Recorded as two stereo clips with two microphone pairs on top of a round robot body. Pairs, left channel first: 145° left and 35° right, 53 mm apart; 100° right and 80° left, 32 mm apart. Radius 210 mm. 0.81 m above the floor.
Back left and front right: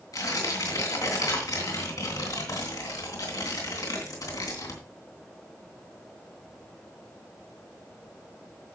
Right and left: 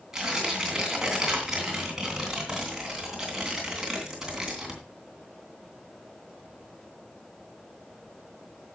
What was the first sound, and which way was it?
Tearing paper, 155° left.